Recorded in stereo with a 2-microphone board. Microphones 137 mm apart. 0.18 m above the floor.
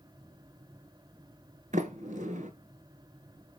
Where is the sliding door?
70° right (ahead or behind), 1.0 m.